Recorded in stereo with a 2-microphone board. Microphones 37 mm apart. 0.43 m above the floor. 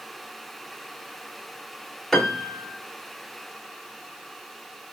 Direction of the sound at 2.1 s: 5° left (ahead or behind).